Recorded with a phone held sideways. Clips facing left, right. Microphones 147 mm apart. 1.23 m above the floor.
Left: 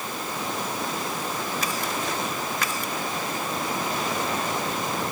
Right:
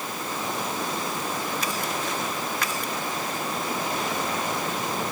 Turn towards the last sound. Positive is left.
No sound to turn to.